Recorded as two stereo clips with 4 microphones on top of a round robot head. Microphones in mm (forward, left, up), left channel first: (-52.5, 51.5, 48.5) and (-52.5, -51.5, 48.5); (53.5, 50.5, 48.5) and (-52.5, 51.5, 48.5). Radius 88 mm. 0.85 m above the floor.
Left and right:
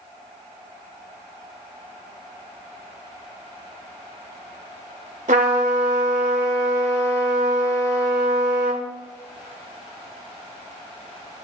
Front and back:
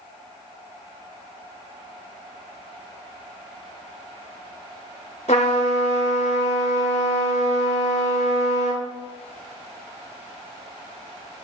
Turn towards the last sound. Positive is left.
turn(degrees=-50)